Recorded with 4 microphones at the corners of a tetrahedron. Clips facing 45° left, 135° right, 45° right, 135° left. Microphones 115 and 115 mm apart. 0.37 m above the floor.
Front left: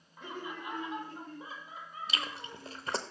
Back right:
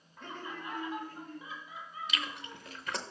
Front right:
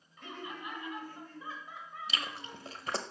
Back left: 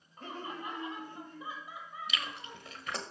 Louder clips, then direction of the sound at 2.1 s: Front left 2 dB, front right 2 dB; 5° right.